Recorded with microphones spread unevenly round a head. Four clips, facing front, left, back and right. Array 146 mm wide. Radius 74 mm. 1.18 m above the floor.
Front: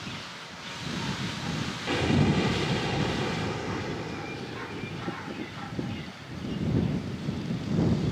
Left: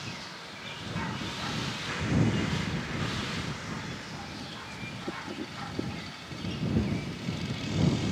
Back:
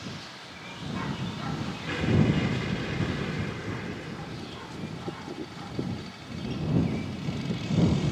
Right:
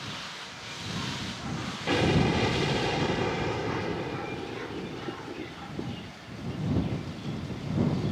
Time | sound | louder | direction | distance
1.9 | an explosion | right 5 dB, even | 90° right | ?